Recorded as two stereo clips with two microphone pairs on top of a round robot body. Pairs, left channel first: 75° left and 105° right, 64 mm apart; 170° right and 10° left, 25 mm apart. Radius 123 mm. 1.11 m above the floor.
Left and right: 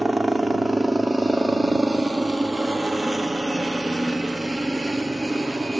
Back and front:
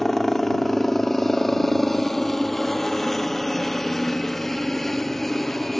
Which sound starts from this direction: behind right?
A helicopter, at 0.0 s.